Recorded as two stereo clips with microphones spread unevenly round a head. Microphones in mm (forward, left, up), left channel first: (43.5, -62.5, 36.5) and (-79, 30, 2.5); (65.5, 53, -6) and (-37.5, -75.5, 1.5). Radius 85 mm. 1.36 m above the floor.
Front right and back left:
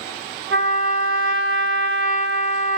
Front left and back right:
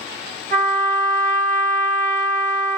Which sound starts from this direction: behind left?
A trumpet, at 0.5 s.